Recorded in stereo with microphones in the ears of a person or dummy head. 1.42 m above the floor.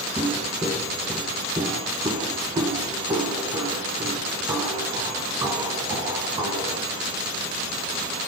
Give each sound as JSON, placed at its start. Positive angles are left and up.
{"t": 0.2, "sound": "footsteps", "side_deg": -5, "distance_m": 1.5}